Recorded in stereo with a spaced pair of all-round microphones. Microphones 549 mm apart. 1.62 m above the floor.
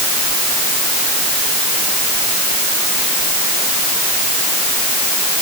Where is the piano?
No piano in this recording.